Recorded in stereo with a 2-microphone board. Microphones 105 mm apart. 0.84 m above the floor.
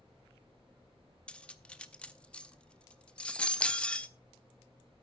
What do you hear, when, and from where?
1.3 s cutlery clinking: 10° left (ahead or behind), 0.6 m